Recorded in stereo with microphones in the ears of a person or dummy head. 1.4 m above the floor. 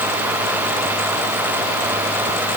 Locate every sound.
Only background noise.